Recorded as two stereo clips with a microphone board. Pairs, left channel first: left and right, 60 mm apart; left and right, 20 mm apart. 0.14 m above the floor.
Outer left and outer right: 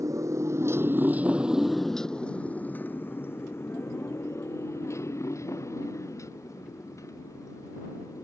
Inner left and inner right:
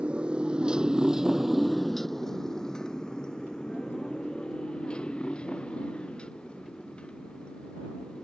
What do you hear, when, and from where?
0.0 s a motorcycle: 65° right (ahead or behind); by 8.2 s 60° left (ahead or behind)